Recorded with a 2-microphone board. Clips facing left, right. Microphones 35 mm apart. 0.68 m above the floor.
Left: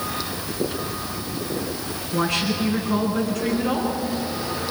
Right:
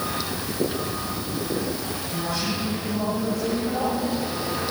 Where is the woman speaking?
80° left, 8.5 m.